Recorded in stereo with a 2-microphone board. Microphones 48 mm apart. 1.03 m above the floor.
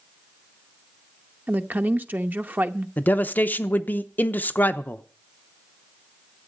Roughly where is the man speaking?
Left.